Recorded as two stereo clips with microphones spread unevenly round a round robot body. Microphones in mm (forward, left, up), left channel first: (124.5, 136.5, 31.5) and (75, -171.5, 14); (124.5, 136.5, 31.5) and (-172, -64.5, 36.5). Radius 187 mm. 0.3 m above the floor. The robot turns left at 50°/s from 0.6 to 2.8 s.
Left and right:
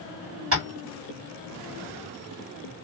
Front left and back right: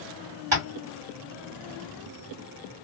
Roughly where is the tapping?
Behind right.